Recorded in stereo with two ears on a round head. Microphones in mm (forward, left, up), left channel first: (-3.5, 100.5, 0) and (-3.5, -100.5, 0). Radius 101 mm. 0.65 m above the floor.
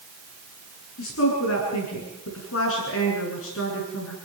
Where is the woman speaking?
65° left (ahead or behind), 8.5 m.